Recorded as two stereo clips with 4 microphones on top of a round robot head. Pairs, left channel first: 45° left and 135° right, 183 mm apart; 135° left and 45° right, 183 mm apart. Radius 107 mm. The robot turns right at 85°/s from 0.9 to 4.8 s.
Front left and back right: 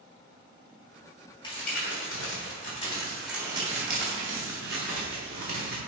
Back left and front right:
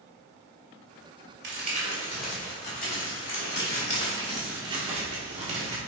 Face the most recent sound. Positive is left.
turn(degrees=-95)